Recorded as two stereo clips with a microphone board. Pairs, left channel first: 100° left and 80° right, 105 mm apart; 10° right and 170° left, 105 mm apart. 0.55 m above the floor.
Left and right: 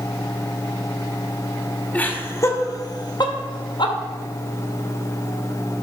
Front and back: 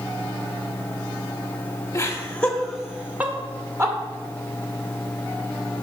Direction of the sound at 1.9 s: 35° left.